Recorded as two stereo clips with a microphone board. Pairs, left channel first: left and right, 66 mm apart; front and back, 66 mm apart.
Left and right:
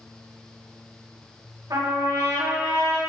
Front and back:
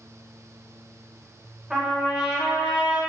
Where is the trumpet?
100° right, 1.7 m.